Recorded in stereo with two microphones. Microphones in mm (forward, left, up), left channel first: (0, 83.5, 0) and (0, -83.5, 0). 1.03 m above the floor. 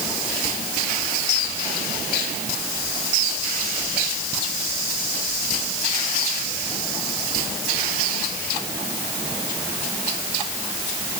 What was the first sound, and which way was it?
Only background noise.